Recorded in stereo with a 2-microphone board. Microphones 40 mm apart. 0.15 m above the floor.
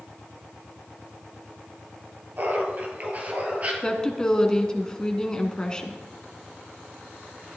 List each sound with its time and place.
2.4 s laughter: 50° right (ahead or behind), 3 m; by 3.7 s 35° right (ahead or behind), 3 m
3.8 s a woman speaking: 20° left (ahead or behind), 1.3 m